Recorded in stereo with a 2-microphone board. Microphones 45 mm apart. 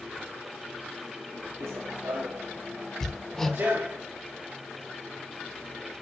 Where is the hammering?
5° left (ahead or behind), 1.5 m.